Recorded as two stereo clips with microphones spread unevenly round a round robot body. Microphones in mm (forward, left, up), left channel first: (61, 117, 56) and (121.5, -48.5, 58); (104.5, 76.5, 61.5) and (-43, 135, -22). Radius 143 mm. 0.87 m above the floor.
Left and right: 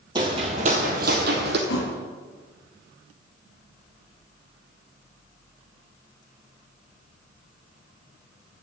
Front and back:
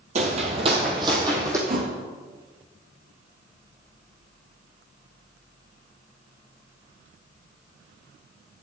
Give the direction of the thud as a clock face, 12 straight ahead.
8 o'clock.